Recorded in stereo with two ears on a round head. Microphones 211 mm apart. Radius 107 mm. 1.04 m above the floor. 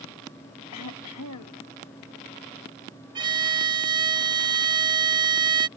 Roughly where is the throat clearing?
Left.